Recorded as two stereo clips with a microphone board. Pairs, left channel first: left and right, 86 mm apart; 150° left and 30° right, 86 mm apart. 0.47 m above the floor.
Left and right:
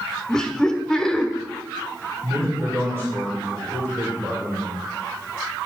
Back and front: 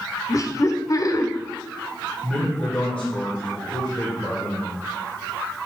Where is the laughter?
170° left, 1.1 m.